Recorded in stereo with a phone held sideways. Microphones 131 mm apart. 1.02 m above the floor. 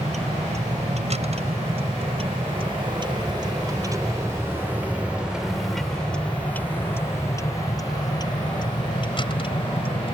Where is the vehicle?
65° right (ahead or behind); by 10.2 s 45° left (ahead or behind).